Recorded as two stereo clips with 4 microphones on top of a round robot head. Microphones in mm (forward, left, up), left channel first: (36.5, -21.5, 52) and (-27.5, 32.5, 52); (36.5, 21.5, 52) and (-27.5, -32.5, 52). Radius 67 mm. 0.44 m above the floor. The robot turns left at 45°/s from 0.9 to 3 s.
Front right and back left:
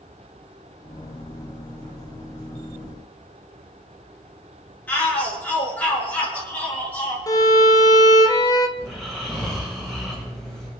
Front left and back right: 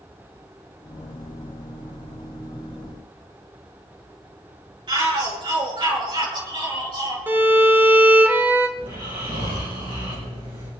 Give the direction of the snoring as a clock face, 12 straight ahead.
4 o'clock.